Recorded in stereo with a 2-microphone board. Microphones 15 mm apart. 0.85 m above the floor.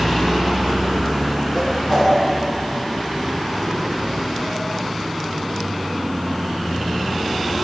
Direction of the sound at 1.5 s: 35° left (ahead or behind).